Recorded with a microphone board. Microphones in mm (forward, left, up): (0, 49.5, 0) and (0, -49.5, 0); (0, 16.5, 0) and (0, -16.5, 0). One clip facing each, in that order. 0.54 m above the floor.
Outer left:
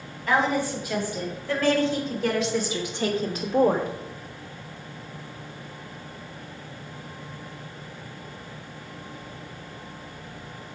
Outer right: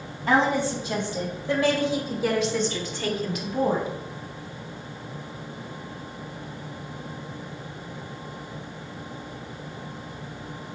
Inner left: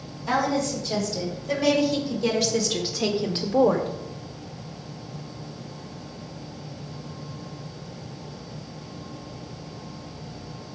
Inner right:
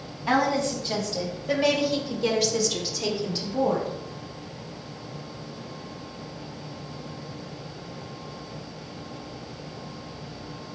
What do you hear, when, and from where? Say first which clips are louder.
0.3 s a woman speaking: outer right 2 dB, inner right 1 dB; 30° right (ahead or behind), 4 m; by 3.9 s 55° left (ahead or behind), 1.7 m